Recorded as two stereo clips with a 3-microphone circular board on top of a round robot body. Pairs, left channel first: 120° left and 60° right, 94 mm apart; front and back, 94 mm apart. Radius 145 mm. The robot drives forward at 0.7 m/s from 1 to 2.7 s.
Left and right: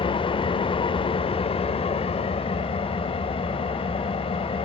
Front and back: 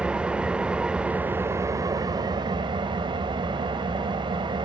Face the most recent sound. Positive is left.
turn(degrees=140)